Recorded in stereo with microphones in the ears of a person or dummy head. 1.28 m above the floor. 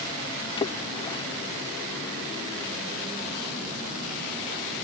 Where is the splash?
25° left (ahead or behind).